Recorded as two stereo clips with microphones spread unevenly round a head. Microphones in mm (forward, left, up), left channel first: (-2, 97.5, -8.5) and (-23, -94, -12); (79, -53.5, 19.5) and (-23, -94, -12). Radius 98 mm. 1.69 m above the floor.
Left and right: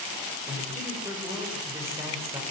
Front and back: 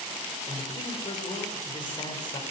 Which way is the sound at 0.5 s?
20° right.